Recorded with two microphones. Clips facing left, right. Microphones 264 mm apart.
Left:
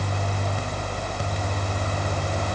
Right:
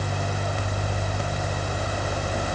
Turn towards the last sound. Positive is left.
No sound to turn to.